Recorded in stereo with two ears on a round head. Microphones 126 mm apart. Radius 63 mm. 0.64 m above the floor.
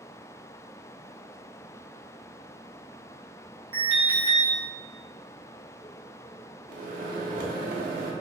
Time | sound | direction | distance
3.7 | an alarm | 40° right (ahead or behind) | 1.7 m
6.7 | a microwave | 65° right (ahead or behind) | 0.7 m